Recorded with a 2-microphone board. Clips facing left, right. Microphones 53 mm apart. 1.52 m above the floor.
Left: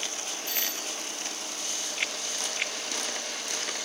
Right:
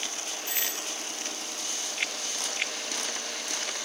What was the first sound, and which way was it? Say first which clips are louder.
A doorbell: even; 15° right (ahead or behind).